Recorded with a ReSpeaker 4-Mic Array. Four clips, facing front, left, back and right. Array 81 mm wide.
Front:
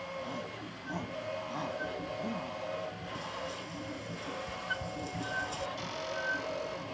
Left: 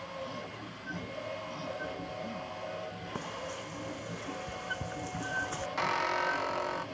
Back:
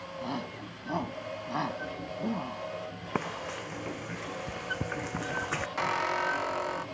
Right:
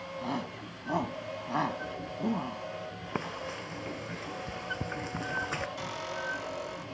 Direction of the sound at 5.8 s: 145° left.